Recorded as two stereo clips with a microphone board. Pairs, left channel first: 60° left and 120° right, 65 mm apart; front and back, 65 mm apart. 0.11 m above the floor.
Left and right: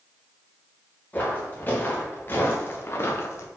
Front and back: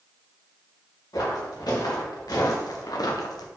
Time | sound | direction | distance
1.1 | footsteps | 5° right | 1.9 m